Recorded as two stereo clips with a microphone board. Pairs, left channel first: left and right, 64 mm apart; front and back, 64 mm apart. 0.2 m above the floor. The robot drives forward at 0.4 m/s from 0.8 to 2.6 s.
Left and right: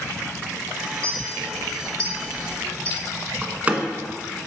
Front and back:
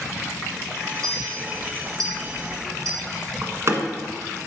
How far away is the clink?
About 1.8 m.